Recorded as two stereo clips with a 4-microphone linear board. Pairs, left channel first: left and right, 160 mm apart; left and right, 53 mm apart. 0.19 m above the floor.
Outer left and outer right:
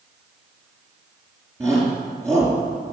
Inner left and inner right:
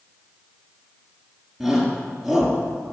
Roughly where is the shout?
Centre.